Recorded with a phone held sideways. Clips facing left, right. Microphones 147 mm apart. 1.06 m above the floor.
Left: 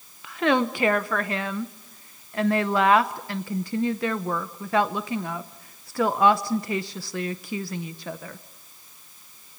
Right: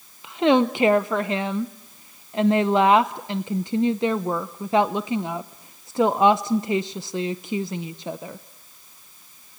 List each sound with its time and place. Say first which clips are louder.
0.2 s a woman speaking: right 4 dB; 20° right (ahead or behind), 0.7 m